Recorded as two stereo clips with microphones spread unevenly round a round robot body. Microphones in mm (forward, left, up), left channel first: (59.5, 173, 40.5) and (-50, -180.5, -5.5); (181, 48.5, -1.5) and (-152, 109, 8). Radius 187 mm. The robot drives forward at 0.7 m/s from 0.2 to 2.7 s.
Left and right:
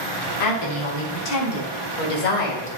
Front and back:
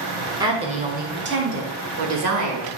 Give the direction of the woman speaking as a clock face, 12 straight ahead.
9 o'clock.